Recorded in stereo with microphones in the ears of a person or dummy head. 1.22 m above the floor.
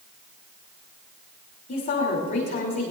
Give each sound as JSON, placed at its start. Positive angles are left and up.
{"t": 1.7, "sound": "a woman speaking", "side_deg": 45, "distance_m": 3.5}